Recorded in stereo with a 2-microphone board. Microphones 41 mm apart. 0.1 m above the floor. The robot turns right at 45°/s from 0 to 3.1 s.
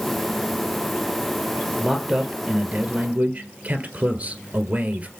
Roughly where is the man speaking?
Behind.